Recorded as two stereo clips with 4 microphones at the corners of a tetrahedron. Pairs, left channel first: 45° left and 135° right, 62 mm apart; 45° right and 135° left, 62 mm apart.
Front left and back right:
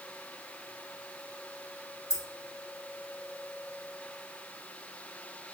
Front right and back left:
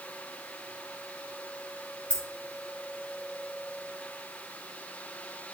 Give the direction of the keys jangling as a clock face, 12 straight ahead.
11 o'clock.